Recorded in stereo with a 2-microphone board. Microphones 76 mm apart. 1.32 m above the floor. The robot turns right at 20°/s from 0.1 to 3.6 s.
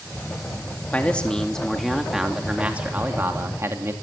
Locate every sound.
0.9 s a man speaking: 160° left, 2.5 m; by 3.9 s 145° right, 2.5 m